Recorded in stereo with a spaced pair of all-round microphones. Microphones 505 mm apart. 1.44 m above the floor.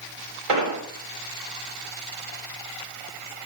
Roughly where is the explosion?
Right.